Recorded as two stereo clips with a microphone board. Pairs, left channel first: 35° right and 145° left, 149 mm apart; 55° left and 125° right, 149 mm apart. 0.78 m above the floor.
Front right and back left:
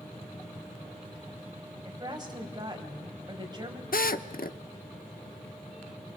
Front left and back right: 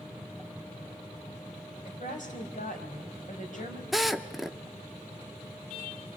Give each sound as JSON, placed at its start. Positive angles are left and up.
{"t": 1.9, "sound": "a woman speaking", "azimuth_deg": 85, "distance_m": 4.0}
{"t": 3.9, "sound": "a drill", "azimuth_deg": -35, "distance_m": 0.8}